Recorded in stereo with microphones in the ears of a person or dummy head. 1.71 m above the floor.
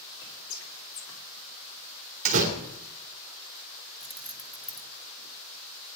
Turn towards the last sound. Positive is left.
turn(degrees=-5)  # may be behind; listen again after turning